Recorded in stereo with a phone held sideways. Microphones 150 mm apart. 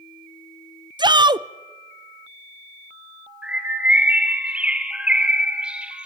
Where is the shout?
30° right (ahead or behind), 0.6 m.